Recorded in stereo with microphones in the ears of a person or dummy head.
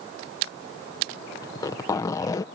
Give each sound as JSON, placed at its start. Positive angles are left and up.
{"t": 1.4, "sound": "a zipper", "side_deg": 20}